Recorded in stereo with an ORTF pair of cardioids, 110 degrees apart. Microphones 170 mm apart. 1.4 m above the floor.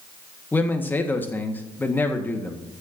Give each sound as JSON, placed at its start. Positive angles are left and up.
{"t": 0.5, "sound": "a man speaking", "azimuth_deg": 10, "distance_m": 1.7}